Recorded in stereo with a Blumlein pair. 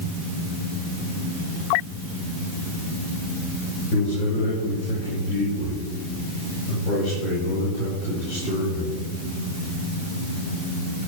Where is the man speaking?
30° left, 6 m; by 9.0 s 25° left, 9.5 m.